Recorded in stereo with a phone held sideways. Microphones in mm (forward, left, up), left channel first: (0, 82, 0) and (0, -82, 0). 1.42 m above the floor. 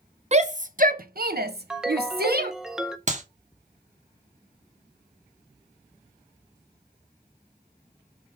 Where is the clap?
50° right (ahead or behind), 1.2 m.